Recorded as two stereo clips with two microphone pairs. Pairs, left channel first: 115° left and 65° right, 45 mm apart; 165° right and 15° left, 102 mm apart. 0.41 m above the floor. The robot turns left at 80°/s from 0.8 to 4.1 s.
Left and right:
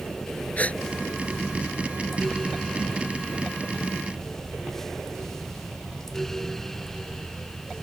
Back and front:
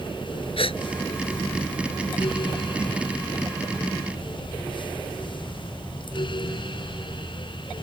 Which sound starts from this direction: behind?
A gasp, at 0.6 s.